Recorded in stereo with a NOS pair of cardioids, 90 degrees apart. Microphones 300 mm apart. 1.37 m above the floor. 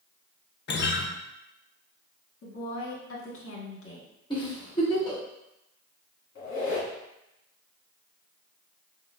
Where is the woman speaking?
45° left, 1.5 m.